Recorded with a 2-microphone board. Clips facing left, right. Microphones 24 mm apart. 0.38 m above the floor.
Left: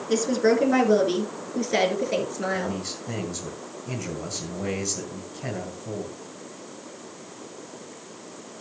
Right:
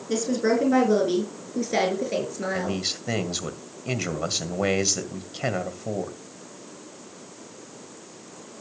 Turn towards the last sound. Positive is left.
turn(degrees=-55)  # may be behind; listen again after turning